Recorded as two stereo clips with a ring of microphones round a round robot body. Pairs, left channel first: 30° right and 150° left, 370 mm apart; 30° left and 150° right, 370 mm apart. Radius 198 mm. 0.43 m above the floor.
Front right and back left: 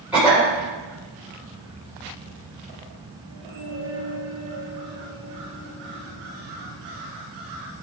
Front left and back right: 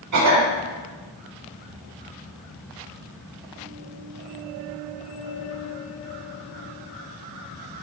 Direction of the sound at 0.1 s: 125° right.